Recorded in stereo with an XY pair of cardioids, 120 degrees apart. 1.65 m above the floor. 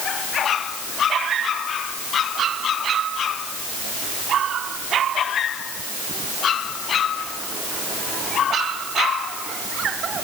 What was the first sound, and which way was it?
Only background noise.